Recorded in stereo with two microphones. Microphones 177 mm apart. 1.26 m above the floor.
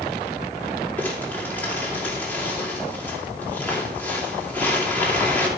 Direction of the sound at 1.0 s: 10° left (ahead or behind).